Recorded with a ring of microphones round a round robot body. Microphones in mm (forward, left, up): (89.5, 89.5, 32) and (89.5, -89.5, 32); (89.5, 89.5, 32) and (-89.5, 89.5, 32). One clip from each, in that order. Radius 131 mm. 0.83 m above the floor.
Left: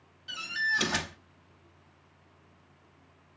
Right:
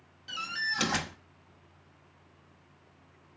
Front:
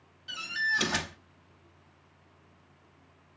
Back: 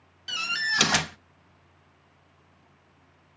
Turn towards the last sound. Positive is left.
turn(degrees=-175)